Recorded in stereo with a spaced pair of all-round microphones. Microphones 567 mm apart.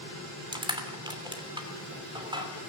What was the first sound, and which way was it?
Crushing, 10° right (ahead or behind).